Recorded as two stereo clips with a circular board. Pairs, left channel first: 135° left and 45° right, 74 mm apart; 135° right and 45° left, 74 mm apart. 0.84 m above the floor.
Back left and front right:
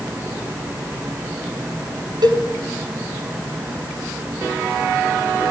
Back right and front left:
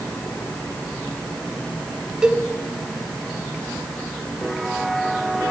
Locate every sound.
2.2 s a cowbell: 35° right, 3 m